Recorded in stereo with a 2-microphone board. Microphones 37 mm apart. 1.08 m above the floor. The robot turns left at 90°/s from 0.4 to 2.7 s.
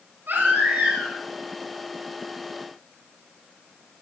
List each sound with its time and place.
0.3 s a baby crying: 115° right, 7.5 m; by 1.2 s straight behind, 7.5 m